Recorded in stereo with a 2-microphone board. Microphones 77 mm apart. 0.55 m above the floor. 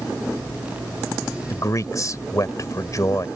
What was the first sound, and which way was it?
A man speaking, 45° left (ahead or behind).